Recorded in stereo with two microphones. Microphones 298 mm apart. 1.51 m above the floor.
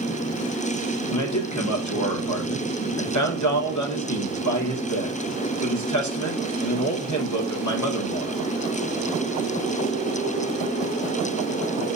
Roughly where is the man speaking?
Left.